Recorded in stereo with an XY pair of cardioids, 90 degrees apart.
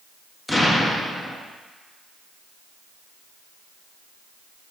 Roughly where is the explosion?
Ahead left.